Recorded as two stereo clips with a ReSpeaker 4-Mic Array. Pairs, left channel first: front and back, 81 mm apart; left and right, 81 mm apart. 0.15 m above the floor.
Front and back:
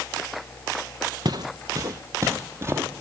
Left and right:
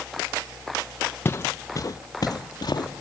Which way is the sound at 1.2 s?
150° left.